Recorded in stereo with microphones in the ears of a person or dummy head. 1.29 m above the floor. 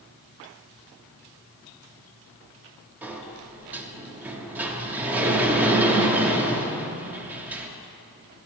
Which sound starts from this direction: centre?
A sliding door, at 3.0 s.